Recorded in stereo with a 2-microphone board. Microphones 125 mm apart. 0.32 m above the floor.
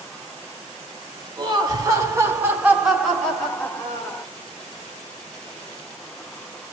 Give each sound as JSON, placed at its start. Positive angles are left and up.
{"t": 1.4, "sound": "laughter", "side_deg": -35, "distance_m": 1.9}